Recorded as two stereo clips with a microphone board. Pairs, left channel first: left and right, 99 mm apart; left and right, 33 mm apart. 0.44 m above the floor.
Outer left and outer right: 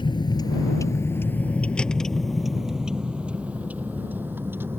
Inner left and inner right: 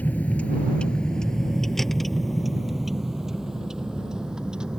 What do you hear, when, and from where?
0.0 s a vehicle: 50° left (ahead or behind); by 4.8 s 25° right (ahead or behind)